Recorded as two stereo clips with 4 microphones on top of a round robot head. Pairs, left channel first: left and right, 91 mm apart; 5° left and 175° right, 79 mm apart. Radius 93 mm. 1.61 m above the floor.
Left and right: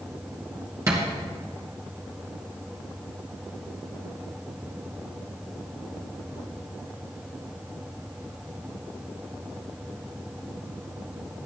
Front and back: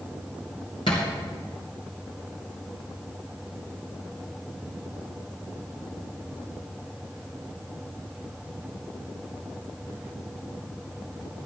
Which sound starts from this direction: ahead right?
A thud, at 0.9 s.